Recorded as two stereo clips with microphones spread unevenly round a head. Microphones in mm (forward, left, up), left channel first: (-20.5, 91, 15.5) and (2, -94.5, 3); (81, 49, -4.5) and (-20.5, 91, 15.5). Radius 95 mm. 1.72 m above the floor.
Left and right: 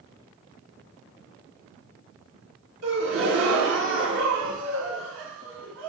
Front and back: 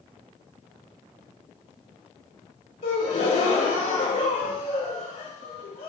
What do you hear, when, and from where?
2.8 s a gasp: 55° right, 2.5 m